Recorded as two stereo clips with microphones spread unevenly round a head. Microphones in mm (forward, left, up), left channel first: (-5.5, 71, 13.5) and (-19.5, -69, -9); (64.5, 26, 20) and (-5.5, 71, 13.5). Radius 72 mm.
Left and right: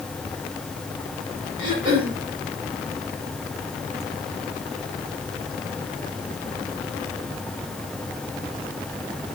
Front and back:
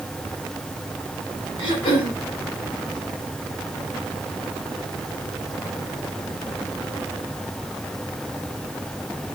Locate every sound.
1.6 s throat clearing: 35° right, 3.5 m